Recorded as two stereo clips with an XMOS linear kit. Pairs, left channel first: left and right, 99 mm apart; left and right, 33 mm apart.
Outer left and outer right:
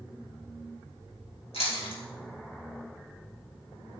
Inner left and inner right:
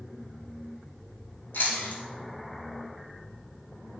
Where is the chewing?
75° left (ahead or behind), 3.5 m.